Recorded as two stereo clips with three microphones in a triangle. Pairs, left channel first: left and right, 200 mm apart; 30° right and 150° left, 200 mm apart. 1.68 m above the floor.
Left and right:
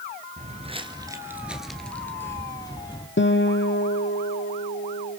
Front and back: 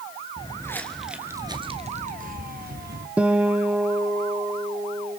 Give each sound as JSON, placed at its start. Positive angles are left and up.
{"t": 0.4, "sound": "footsteps", "azimuth_deg": -80, "distance_m": 1.9}
{"t": 3.2, "sound": "a guitar", "azimuth_deg": 65, "distance_m": 1.2}